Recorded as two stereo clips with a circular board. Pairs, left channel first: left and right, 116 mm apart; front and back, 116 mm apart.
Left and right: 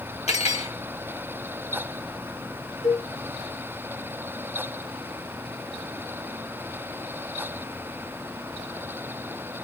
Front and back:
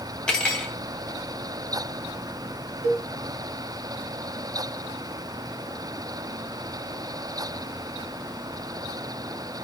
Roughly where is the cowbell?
Ahead left.